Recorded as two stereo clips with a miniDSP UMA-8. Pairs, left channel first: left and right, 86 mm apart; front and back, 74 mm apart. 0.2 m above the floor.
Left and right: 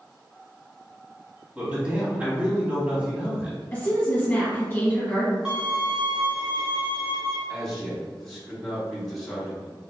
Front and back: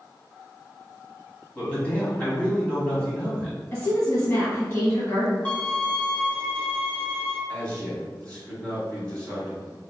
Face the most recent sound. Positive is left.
turn(degrees=20)